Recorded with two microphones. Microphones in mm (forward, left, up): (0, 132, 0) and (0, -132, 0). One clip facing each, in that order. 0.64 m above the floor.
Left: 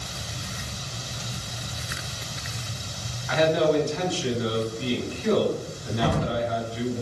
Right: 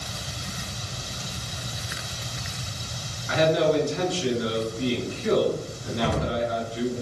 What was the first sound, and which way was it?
A man speaking, 25° right (ahead or behind).